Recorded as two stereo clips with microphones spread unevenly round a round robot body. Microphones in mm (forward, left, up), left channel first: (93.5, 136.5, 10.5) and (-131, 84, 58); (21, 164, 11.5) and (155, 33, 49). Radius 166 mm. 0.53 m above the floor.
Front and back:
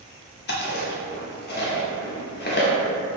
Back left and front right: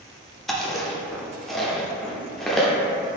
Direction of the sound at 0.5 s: 50° left.